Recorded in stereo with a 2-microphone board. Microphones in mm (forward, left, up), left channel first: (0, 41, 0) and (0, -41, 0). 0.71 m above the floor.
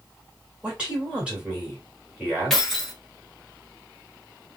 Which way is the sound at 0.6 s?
15° right (ahead or behind).